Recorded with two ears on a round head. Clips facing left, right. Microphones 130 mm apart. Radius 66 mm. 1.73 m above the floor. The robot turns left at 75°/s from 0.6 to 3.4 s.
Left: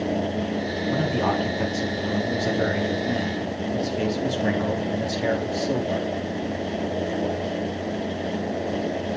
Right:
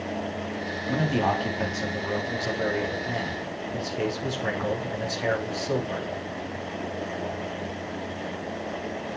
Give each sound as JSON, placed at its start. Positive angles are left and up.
{"t": 0.9, "sound": "a man speaking", "azimuth_deg": -130, "distance_m": 3.5}